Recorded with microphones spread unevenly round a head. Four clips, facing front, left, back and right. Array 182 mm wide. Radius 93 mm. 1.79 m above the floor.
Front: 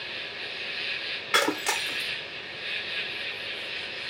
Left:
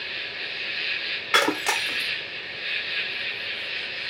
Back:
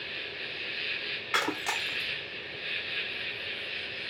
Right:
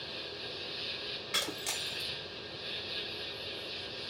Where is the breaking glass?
65° left.